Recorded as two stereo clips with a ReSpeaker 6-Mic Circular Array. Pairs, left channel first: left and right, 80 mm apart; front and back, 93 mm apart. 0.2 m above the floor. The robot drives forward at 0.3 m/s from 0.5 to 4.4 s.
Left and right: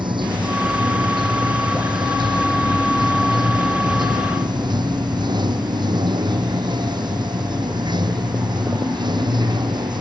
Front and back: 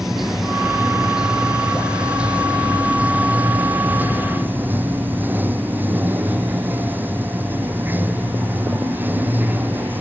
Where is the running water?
95° right; by 10.0 s 110° right.